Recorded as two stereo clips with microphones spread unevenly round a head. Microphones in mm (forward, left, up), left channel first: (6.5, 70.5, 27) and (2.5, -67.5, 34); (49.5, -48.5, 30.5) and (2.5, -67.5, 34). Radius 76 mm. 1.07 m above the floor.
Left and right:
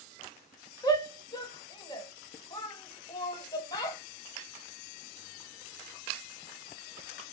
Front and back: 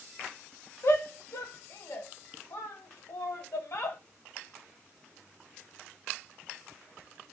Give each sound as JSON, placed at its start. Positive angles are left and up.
{"t": 0.8, "sound": "a shout", "azimuth_deg": 35, "distance_m": 1.2}